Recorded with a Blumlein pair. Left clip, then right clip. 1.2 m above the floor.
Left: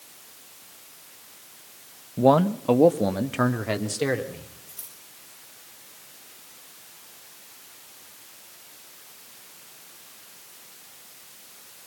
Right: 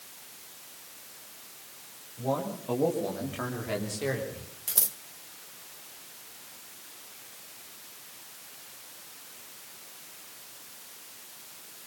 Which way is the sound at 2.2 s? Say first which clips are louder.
Left 12 dB; 50° left.